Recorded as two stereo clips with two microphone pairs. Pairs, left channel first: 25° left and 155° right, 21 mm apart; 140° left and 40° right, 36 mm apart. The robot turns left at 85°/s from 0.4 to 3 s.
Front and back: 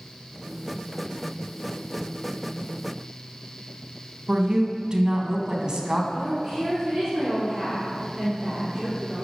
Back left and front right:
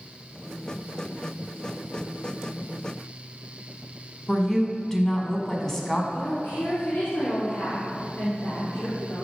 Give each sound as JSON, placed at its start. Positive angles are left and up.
{"t": 4.3, "sound": "a woman speaking", "azimuth_deg": -145, "distance_m": 1.3}
{"t": 6.1, "sound": "a woman speaking", "azimuth_deg": 135, "distance_m": 2.5}